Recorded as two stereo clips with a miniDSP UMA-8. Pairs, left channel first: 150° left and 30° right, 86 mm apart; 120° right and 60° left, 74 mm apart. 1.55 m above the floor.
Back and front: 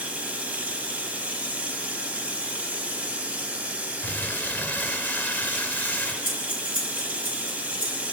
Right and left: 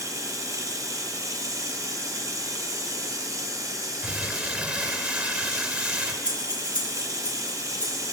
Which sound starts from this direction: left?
Crumpling, at 4.0 s.